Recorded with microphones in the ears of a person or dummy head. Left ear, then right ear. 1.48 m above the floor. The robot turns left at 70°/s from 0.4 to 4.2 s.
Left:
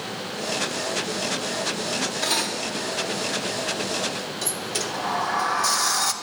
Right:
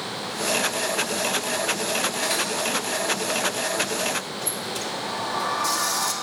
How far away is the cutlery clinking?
About 1.5 m.